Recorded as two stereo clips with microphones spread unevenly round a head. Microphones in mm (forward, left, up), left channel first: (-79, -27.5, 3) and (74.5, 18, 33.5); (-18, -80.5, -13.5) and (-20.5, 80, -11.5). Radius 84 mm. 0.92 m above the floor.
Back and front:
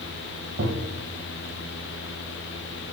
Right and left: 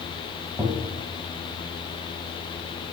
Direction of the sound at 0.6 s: 20° left.